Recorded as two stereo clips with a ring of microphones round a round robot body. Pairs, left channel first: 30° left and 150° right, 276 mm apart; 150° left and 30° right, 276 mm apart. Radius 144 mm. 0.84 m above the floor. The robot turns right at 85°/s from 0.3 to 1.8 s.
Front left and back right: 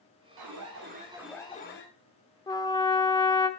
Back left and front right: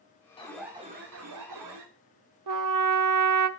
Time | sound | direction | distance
0.4 | an alarm | 140° right | 2 m
2.5 | a trumpet | 45° right | 0.6 m